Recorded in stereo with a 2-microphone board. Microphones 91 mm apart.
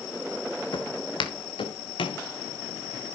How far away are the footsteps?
About 2.5 m.